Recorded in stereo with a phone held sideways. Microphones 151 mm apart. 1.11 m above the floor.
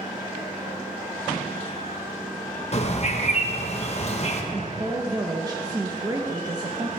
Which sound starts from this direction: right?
A woman speaking, at 4.5 s.